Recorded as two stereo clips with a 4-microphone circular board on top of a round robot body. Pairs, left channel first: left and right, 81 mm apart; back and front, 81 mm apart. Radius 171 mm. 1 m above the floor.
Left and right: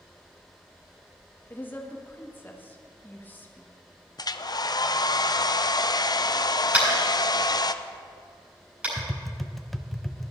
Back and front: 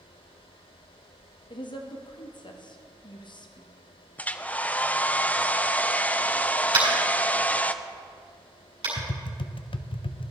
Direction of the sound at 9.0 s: Straight behind.